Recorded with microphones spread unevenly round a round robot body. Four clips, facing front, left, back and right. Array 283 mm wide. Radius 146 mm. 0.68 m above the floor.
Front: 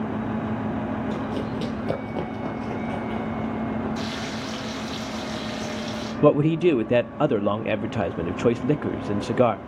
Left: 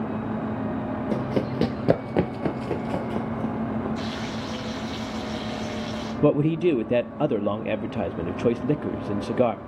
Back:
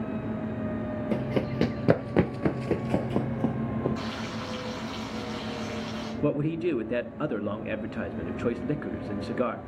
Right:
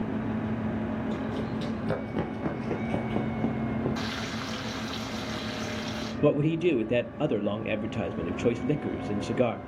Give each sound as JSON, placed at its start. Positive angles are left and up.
{"t": 1.1, "sound": "running footsteps", "azimuth_deg": 105, "distance_m": 1.1}
{"t": 4.0, "sound": "frying", "azimuth_deg": -95, "distance_m": 2.5}
{"t": 6.2, "sound": "a man speaking", "azimuth_deg": 30, "distance_m": 0.7}